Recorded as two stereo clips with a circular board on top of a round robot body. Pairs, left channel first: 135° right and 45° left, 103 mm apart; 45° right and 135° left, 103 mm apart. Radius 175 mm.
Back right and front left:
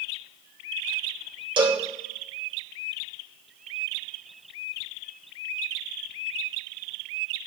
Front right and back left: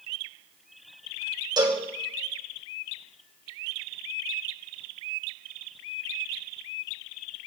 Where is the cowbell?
85° left, 2.5 m.